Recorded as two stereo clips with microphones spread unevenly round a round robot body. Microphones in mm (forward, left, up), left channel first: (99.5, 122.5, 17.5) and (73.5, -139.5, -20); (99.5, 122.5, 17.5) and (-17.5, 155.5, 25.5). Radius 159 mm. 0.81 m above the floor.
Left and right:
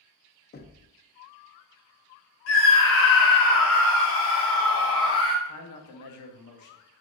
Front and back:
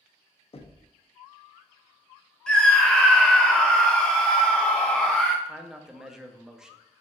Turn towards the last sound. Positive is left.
turn(degrees=75)